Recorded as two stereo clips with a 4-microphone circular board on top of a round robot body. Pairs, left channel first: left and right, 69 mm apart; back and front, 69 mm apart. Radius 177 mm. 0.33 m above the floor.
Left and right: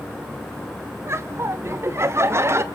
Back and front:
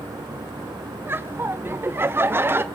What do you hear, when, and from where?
1.1 s laughter: 50° right, 1.4 m